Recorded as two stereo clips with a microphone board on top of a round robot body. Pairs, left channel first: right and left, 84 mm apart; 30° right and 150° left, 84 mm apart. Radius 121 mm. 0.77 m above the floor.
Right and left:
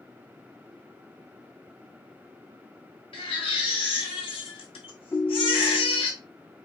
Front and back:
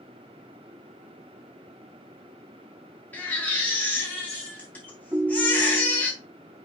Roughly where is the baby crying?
Right.